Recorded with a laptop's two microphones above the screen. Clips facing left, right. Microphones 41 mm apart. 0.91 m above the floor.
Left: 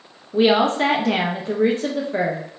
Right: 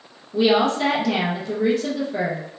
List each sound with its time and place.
0.3 s a woman speaking: 35° left (ahead or behind), 0.5 m